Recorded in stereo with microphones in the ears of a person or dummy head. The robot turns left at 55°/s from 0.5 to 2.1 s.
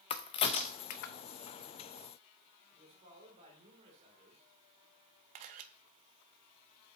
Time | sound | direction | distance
0.1 | a crack | 25° left (ahead or behind) | 0.6 m
2.7 | a man speaking | 35° right (ahead or behind) | 3 m
5.3 | a camera shutter | 45° right (ahead or behind) | 0.7 m